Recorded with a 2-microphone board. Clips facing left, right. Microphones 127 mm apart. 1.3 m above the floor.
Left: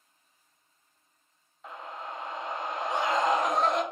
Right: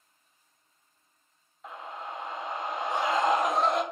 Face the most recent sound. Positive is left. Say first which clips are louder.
# even
turn(degrees=0)  # may be behind; listen again after turning